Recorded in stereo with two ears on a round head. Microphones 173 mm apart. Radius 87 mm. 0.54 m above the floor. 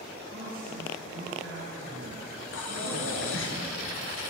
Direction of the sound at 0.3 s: 55° right (ahead or behind).